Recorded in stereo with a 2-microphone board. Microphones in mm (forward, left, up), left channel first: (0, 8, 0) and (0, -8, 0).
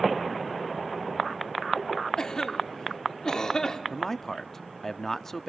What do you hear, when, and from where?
2.2 s a cough: 45° left (ahead or behind), 1.6 m
3.9 s a man speaking: 25° left (ahead or behind), 0.7 m